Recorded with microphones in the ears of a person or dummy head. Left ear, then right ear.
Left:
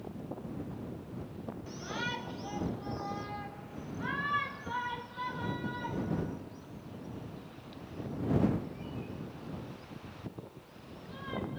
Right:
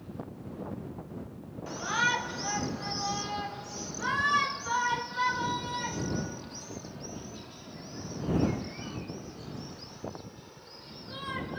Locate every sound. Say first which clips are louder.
1.7 s a shout: right 10 dB; 35° right (ahead or behind); by 11.6 s 75° right (ahead or behind)